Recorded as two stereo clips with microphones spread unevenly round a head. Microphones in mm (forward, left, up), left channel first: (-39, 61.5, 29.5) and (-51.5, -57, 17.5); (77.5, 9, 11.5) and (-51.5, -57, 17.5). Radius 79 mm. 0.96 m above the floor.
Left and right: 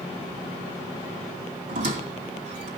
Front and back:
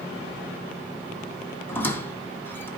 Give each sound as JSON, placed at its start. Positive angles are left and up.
{"t": 1.7, "sound": "a squeak", "azimuth_deg": -50, "distance_m": 2.5}